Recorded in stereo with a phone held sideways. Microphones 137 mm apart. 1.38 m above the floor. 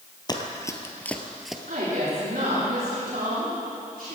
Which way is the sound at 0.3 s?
30° left (ahead or behind).